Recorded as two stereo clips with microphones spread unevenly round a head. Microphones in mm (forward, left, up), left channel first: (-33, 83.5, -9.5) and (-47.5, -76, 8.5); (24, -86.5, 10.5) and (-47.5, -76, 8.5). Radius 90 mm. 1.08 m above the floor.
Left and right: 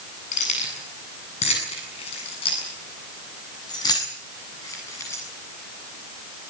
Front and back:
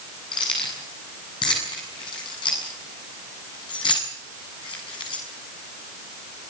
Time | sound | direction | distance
0.3 | keys jangling | 30° left | 8 m